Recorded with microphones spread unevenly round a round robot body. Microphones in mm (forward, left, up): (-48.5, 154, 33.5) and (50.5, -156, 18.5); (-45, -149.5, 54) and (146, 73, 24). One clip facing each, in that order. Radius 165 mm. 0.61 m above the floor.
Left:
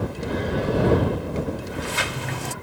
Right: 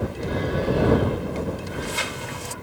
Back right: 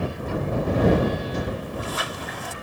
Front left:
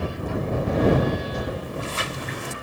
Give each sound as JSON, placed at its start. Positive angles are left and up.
{"t": 1.6, "sound": "a sliding door", "azimuth_deg": 100}